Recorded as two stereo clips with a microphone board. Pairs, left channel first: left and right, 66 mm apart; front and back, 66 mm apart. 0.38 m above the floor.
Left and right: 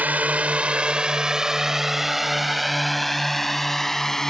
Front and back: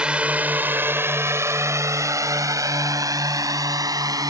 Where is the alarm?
No alarm in this recording.